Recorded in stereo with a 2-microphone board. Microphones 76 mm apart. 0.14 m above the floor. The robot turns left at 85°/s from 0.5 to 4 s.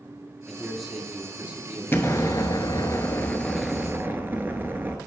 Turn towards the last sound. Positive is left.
turn(degrees=-35)